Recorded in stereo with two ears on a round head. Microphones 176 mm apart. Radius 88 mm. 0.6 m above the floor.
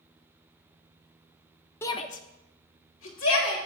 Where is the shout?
10° left (ahead or behind), 0.7 m; by 3.7 s 75° left (ahead or behind), 2.5 m.